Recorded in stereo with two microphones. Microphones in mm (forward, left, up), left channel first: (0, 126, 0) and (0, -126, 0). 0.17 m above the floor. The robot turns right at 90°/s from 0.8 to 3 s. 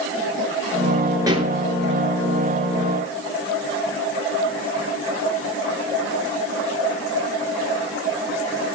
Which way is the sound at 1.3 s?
15° right (ahead or behind).